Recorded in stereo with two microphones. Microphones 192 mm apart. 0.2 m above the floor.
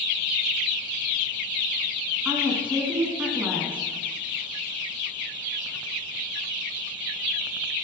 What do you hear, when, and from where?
2.2 s a woman speaking: 5° right (ahead or behind), 2.0 m